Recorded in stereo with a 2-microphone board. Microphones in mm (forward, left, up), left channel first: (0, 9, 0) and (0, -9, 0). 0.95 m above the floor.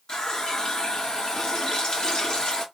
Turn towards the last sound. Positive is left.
turn(degrees=55)  # may be behind; listen again after turning